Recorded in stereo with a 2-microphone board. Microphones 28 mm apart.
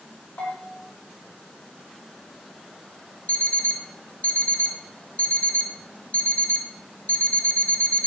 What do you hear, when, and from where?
0.4 s a bell: 75° left (ahead or behind), 4 m
3.3 s an alarm clock: 60° left (ahead or behind), 1.5 m